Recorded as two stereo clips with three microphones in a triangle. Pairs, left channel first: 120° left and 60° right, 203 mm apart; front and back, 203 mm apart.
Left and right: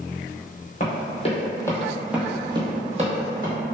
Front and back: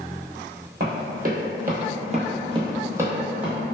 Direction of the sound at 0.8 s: 155° left.